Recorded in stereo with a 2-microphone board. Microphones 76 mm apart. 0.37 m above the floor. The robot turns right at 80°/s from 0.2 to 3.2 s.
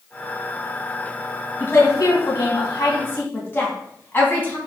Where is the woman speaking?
20° left (ahead or behind), 3 m; by 4.6 s 25° left (ahead or behind), 3 m.